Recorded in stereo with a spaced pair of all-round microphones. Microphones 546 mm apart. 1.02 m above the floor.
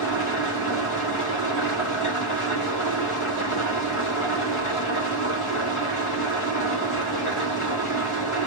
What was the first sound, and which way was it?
An engine running, 65° left (ahead or behind).